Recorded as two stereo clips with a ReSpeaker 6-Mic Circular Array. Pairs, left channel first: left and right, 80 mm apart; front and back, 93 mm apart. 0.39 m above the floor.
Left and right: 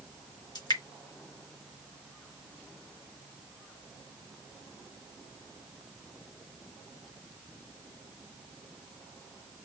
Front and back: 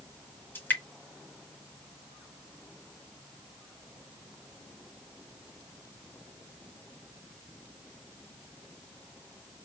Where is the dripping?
70° left, 1.3 m.